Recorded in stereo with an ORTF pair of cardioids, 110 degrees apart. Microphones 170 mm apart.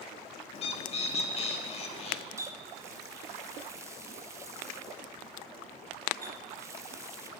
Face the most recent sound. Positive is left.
turn(degrees=-15)